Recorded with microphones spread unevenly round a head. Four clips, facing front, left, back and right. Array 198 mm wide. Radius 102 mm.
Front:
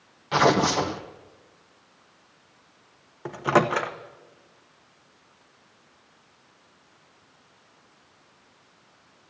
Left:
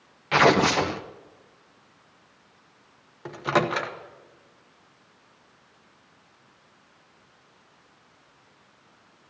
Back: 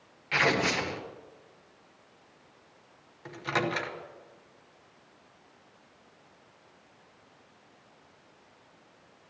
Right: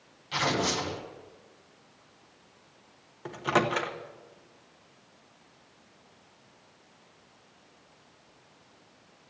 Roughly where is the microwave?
Ahead.